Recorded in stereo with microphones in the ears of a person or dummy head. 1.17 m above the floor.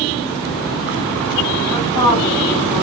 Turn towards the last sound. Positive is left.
turn(degrees=15)  # may be behind; listen again after turning